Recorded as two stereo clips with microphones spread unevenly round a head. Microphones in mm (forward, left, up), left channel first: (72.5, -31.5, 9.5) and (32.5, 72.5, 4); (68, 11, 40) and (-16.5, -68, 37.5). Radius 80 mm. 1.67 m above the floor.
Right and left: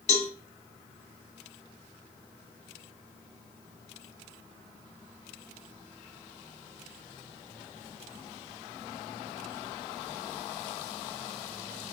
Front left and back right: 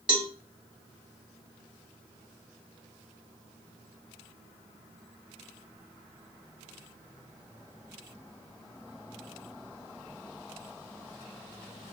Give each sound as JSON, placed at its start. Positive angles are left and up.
{"t": 0.1, "sound": "a cowbell", "azimuth_deg": -55, "distance_m": 0.9}